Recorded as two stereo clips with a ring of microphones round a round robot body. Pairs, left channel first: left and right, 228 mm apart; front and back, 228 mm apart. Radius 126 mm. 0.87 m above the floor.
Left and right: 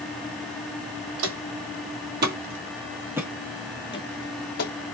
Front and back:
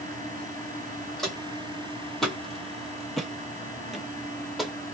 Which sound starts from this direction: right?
Footsteps, at 1.2 s.